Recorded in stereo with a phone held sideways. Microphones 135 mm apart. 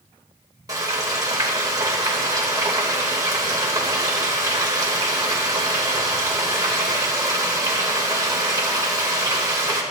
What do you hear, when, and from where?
0.7 s frying: 25° right (ahead or behind), 2.5 m